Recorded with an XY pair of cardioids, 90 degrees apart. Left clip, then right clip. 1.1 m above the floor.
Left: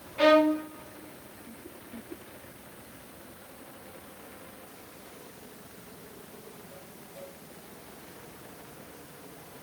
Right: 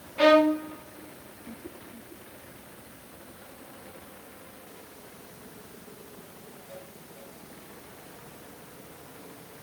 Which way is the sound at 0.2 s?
10° right.